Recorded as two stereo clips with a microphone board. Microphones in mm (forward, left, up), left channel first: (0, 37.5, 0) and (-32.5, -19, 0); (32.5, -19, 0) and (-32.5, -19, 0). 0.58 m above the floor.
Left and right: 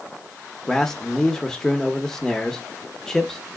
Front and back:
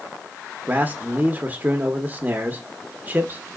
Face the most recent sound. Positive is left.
turn(degrees=135)